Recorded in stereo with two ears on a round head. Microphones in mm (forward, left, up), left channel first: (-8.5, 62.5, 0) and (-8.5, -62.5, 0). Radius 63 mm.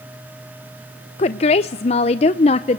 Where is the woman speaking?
45° left (ahead or behind), 0.5 m.